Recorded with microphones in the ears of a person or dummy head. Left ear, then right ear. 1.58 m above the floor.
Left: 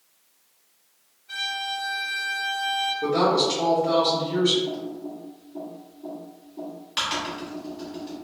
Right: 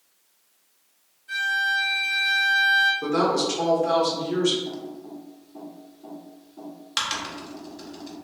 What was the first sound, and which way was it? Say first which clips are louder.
A violin: right 6 dB; 45° right (ahead or behind).